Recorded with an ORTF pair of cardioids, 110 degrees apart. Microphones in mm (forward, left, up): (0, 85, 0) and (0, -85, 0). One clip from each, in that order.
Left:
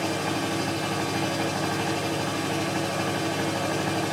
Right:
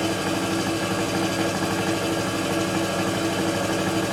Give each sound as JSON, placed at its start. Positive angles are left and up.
{"t": 0.0, "sound": "a machine running", "azimuth_deg": -60, "distance_m": 1.5}